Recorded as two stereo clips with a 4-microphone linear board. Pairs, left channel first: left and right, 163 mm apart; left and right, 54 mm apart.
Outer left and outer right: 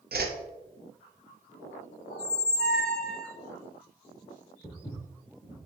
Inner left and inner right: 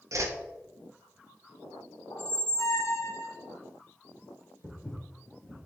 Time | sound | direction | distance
0.1 | a whoosh | 70° right (ahead or behind) | 0.5 m
2.1 | a squeak | 80° left | 0.5 m
4.6 | footsteps | 25° left (ahead or behind) | 1.4 m